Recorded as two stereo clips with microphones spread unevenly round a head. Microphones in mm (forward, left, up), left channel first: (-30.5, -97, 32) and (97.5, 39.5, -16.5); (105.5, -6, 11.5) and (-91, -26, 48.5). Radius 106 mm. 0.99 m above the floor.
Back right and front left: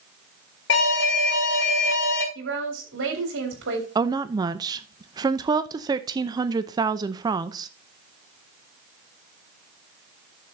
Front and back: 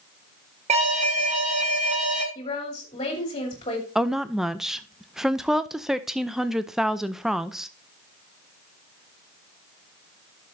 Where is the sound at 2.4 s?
70° left, 3.5 m.